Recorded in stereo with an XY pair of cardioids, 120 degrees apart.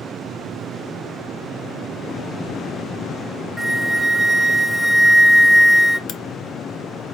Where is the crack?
60° left, 0.5 m.